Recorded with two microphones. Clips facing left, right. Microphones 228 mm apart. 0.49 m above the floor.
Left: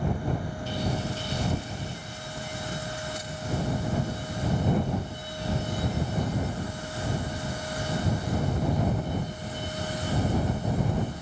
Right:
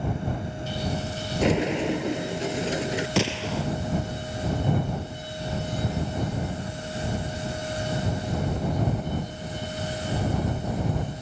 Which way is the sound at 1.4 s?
75° right (ahead or behind).